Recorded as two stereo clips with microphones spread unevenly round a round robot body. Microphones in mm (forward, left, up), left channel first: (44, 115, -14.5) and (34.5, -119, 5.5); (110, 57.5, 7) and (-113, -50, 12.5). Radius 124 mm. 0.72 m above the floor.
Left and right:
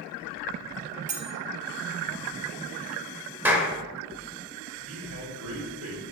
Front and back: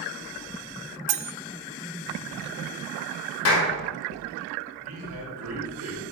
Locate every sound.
1.1 s cutlery clinking: 160° right, 0.5 m
3.5 s a clap: 10° right, 1.9 m
4.8 s a man speaking: 130° right, 2.5 m